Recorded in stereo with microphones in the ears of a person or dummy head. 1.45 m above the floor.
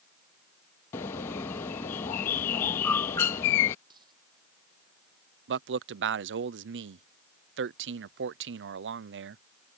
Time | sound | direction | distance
0.9 | a bird | 15° left (ahead or behind) | ?
3.9 | a dropped coin | 25° right (ahead or behind) | ?
5.5 | a man speaking | 60° right (ahead or behind) | ?